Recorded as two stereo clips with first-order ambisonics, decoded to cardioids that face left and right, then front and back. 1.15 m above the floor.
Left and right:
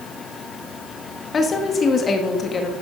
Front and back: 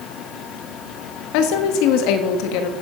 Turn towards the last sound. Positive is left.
turn(degrees=20)